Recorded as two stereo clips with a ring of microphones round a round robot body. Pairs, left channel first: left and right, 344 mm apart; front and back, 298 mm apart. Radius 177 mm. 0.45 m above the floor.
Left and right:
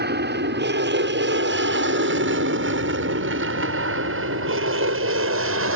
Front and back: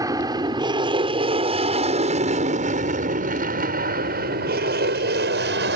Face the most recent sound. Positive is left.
turn(degrees=-130)